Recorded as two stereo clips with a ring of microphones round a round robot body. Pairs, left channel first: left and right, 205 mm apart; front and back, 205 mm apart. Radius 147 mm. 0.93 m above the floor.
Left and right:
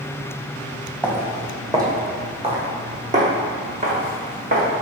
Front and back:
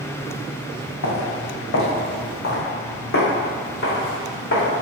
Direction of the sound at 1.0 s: 5° right.